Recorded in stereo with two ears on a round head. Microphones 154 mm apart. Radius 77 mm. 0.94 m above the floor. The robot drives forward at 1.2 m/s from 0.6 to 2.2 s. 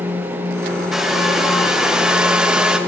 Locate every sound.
0.9 s a hair dryer: 5° right (ahead or behind), 2.5 m